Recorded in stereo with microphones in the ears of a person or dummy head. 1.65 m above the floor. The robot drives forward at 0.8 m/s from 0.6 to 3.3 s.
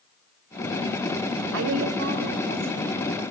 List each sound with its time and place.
1.5 s a woman speaking: 75° right (ahead or behind), 1.2 m; by 3.3 s 35° right (ahead or behind), 1.9 m